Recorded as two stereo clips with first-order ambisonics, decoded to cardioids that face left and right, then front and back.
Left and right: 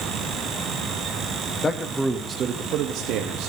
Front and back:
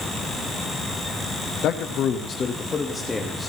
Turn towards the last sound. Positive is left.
turn(degrees=-85)